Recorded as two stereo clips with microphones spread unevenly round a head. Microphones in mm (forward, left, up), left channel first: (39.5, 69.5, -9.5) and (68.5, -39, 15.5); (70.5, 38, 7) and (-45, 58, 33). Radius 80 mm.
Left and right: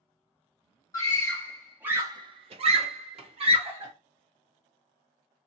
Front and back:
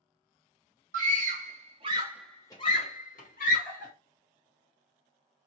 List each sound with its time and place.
0.9 s a scream: straight behind, 0.9 m; by 3.9 s 40° right, 1.2 m